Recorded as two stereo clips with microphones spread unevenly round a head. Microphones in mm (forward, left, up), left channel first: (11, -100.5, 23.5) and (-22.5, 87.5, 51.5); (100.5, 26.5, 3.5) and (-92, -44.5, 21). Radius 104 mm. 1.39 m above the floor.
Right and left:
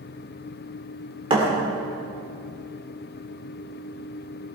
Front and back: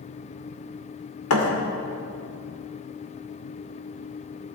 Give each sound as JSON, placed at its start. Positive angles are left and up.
{"t": 1.3, "sound": "a thud", "azimuth_deg": 40, "distance_m": 2.5}